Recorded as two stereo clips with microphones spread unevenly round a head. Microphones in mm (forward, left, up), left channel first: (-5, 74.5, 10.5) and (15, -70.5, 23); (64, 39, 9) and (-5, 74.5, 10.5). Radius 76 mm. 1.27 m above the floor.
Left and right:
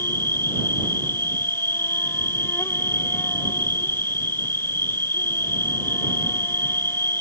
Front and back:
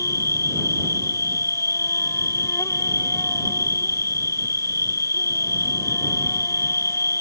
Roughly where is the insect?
Ahead.